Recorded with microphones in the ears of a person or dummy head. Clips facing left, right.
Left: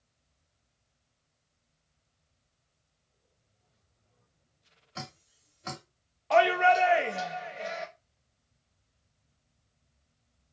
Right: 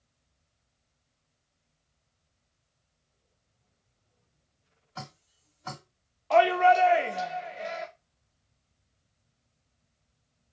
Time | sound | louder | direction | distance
5.0 | dripping | even | 25° left (ahead or behind) | 1.6 m
6.3 | a shout | right 2 dB | centre (ahead or behind) | 0.5 m